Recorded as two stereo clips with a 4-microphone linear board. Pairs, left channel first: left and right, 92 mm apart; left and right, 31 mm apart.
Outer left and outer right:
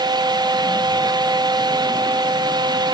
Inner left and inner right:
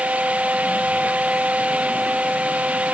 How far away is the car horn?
No car horn in this recording.